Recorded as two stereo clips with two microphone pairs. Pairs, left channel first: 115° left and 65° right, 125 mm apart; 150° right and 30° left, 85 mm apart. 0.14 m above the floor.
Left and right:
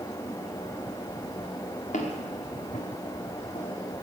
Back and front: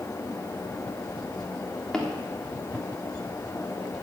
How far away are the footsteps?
About 4 m.